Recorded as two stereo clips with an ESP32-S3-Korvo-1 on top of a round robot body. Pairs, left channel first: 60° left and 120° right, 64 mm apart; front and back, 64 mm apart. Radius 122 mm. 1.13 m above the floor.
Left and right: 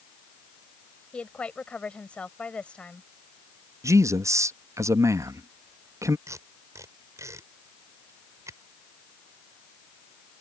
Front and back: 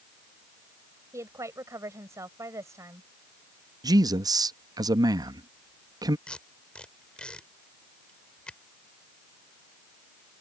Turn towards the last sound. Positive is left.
turn(degrees=-75)